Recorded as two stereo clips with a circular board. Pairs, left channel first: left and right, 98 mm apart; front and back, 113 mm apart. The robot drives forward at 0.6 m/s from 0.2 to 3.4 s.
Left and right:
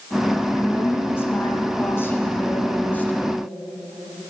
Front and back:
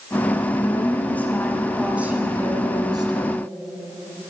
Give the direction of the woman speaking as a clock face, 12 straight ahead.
11 o'clock.